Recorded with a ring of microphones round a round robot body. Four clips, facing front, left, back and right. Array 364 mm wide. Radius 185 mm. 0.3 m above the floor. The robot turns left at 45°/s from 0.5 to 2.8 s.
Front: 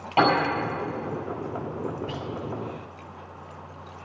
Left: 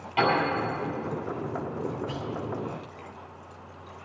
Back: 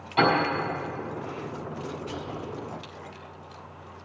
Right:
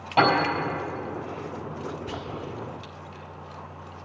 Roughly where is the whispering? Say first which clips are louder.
Left 1 dB, front 2 dB; ahead right.